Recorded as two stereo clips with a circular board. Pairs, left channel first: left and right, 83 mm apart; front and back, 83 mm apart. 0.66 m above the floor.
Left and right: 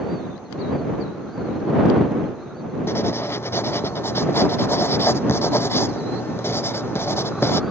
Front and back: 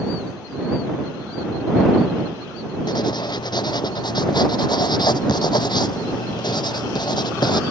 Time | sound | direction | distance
2.9 | writing | 30° left | ?